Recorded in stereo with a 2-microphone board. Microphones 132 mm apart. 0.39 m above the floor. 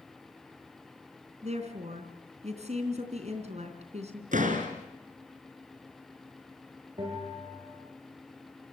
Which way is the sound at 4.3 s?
80° right.